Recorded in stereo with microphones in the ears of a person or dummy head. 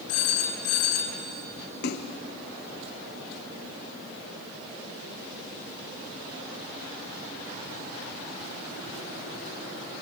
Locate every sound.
0.1 s a phone ringing: 80° left, 2.5 m
1.8 s a splash: 55° left (ahead or behind), 1.1 m